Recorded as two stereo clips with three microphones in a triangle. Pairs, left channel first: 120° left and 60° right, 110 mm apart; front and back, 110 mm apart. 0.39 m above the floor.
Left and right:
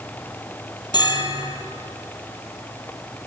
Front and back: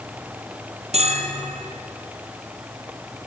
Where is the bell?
170° left, 2.5 m.